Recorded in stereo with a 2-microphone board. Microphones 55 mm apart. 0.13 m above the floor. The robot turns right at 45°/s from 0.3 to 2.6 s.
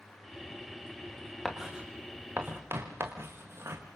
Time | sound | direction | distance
1.4 | writing | 5° left (ahead or behind) | 3.5 m